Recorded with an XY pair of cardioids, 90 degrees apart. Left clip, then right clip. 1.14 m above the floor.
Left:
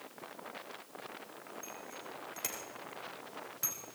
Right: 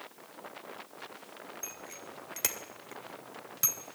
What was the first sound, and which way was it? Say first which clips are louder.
A bicycle bell: right 2 dB; 65° right.